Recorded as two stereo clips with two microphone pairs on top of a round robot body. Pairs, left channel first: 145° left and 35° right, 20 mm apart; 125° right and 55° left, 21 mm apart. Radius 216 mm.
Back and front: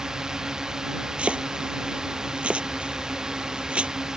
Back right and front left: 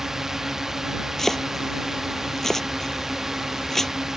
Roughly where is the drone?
Ahead.